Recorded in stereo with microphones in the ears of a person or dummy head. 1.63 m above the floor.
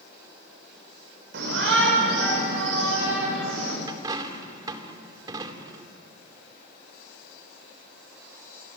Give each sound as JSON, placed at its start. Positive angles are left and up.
{"t": 1.3, "sound": "a shout", "side_deg": -75, "distance_m": 8.0}
{"t": 3.9, "sound": "a dropped coin", "side_deg": -20, "distance_m": 2.5}